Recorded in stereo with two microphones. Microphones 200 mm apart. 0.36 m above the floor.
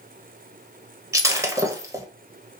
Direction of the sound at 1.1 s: 15° right (ahead or behind).